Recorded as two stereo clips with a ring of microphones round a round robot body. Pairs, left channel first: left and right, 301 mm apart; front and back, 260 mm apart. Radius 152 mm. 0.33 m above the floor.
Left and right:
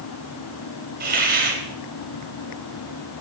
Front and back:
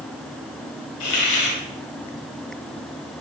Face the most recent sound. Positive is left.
turn(degrees=-30)